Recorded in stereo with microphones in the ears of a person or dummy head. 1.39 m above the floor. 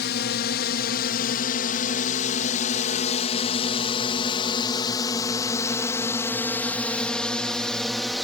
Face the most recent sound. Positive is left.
turn(degrees=0)  # may be behind; listen again after turning